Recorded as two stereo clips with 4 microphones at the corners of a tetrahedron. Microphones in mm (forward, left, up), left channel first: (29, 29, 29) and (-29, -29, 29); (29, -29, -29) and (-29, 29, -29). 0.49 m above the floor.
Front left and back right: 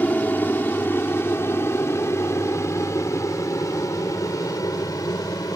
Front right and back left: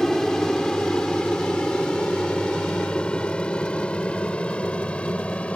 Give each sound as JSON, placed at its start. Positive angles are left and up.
{"t": 0.0, "sound": "an aircraft", "azimuth_deg": 30}